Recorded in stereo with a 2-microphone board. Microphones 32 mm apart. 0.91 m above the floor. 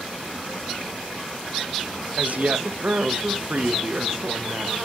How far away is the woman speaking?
About 0.5 m.